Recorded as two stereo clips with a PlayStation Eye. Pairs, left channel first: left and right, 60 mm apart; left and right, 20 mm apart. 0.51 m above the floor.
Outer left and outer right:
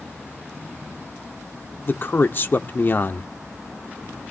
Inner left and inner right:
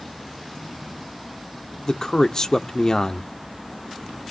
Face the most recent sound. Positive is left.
turn(degrees=35)  # may be behind; listen again after turning